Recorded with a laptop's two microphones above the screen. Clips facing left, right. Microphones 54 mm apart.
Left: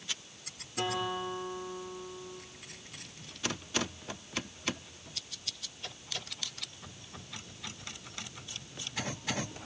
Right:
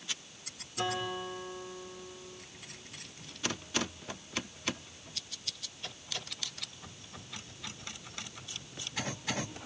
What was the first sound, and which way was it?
A guitar, 45° left (ahead or behind).